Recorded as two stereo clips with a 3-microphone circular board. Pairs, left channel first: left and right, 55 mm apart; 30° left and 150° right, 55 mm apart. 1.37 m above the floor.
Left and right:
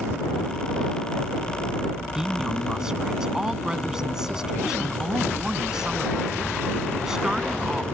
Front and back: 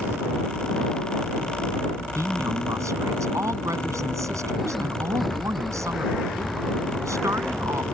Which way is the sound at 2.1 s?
165° right.